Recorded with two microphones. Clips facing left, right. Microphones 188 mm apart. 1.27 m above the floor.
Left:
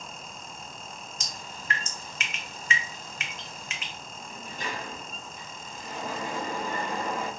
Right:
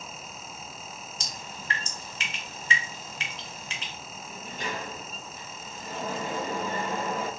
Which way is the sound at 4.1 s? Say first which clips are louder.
Right 1 dB; 60° right (ahead or behind).